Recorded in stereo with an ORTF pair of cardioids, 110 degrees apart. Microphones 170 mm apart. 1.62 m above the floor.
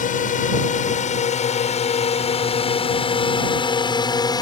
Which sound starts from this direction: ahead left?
A drone, at 0.0 s.